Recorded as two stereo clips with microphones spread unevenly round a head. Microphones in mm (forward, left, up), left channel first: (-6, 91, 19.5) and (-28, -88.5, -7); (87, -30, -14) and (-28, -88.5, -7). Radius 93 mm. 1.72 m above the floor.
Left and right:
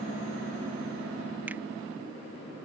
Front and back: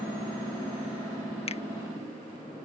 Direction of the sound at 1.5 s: 10° right.